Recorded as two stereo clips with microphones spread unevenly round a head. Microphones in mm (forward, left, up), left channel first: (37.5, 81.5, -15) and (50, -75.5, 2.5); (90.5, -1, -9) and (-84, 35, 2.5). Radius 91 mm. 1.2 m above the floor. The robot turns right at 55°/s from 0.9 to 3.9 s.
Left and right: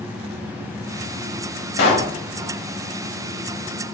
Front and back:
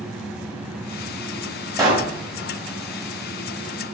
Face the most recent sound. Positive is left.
turn(degrees=-150)